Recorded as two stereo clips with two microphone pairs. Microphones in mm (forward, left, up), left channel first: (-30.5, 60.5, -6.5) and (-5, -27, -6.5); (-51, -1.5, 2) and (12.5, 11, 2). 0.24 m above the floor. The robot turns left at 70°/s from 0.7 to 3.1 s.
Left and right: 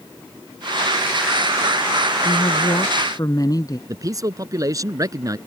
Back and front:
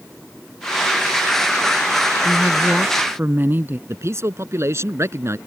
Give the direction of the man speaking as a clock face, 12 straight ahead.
1 o'clock.